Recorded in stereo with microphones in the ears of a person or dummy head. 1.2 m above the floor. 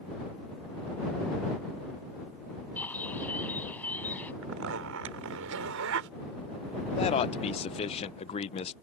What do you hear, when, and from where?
2.8 s a bird: 10° left (ahead or behind)
4.4 s a zipper: 75° right (ahead or behind)
7.0 s a man speaking: 30° left (ahead or behind)